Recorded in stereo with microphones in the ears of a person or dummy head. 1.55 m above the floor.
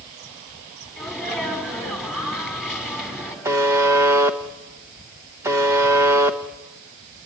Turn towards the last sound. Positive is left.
turn(degrees=-15)  # may be behind; listen again after turning